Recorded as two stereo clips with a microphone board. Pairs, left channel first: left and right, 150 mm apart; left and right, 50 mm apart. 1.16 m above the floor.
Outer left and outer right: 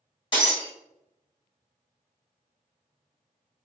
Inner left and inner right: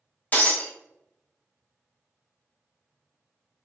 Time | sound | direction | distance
0.3 | breaking glass | 35° left (ahead or behind) | 1.4 m